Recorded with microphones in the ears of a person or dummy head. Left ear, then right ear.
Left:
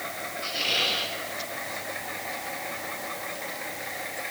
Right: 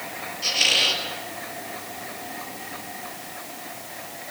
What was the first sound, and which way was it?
A squeak, 45° right (ahead or behind).